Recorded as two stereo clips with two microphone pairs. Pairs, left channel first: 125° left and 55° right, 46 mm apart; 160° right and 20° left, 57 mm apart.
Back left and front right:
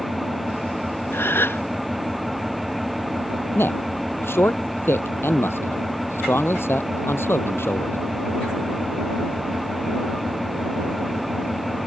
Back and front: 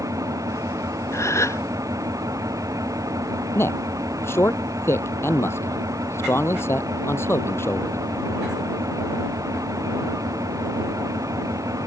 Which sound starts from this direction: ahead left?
An engine running, at 0.0 s.